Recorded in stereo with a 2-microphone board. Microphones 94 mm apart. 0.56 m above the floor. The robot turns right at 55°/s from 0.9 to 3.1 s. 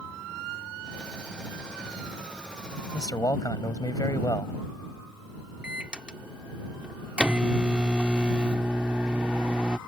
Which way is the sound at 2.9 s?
55° left (ahead or behind).